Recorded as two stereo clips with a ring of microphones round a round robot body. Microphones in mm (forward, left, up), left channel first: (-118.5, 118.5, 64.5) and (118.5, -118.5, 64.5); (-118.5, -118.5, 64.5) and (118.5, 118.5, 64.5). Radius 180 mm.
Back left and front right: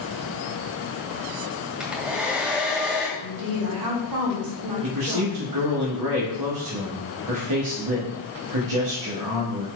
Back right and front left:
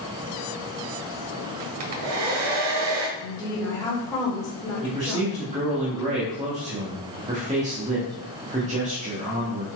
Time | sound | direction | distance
1.8 | a hair dryer | 40° left | 1.3 m
3.2 | a woman speaking | 55° right | 3.5 m
4.8 | a man speaking | 25° right | 1.8 m